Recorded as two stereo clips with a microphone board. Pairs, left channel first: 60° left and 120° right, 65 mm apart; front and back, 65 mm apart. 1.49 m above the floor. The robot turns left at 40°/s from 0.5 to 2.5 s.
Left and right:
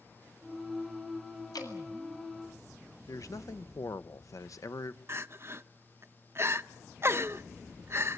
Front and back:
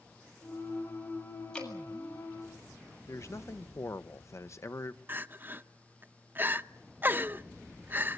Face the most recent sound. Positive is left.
turn(degrees=-140)